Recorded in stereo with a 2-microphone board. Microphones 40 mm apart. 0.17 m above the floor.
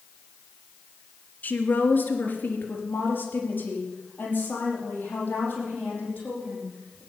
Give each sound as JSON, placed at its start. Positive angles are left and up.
{"t": 1.4, "sound": "a woman speaking", "side_deg": 45, "distance_m": 2.0}